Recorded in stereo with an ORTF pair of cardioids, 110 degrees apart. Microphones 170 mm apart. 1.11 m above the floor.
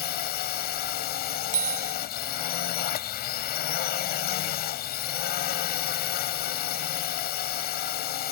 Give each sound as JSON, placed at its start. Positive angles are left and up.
{"t": 0.0, "sound": "a drone", "azimuth_deg": 70}
{"t": 1.5, "sound": "a bicycle bell", "azimuth_deg": -50}